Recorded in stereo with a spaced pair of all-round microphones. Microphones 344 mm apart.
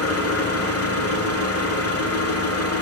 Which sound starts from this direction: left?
An engine running, at 0.0 s.